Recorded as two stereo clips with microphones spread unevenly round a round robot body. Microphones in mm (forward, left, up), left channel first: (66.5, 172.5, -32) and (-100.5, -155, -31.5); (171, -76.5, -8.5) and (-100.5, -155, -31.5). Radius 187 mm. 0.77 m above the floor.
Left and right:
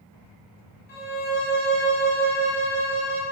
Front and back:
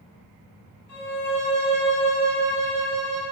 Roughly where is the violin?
Ahead left.